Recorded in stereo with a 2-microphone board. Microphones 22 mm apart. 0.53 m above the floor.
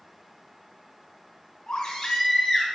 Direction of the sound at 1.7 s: 55° left (ahead or behind).